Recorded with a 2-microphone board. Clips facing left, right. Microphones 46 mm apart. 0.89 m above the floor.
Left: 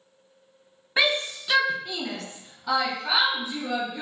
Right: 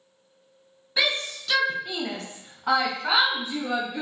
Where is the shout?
35° left (ahead or behind), 0.9 m; by 4.0 s 75° right (ahead or behind), 1.5 m.